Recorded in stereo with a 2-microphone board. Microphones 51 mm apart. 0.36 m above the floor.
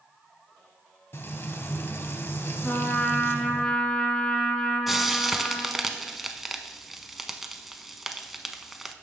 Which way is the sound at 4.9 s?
5° right (ahead or behind).